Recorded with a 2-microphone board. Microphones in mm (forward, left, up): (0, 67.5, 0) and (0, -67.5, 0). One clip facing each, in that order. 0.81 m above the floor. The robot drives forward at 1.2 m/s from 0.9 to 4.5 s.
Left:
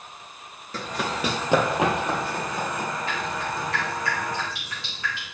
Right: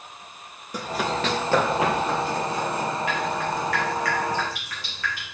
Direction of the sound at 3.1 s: 35° left (ahead or behind).